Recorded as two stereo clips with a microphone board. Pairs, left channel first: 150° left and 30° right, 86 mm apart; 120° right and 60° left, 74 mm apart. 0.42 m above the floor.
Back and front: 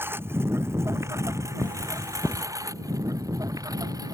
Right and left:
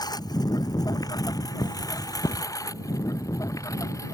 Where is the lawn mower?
95° right; by 4.2 s 75° right.